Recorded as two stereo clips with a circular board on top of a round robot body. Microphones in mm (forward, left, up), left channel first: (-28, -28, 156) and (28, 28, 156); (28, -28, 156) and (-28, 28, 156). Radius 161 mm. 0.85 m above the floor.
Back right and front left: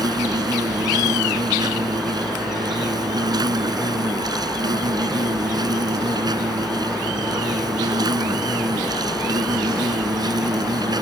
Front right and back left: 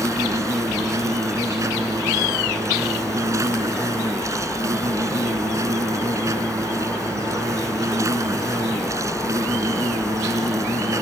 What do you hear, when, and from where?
0.0 s an insect: 80° left